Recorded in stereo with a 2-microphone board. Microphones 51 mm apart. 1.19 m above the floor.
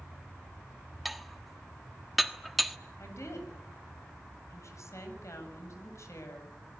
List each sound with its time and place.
1.1 s dishes clattering: centre (ahead or behind), 1.3 m
3.0 s a woman speaking: 65° left (ahead or behind), 8 m